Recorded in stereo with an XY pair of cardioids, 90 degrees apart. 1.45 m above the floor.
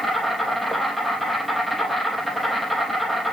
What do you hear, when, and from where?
0.0 s an insect: 15° left, 3.5 m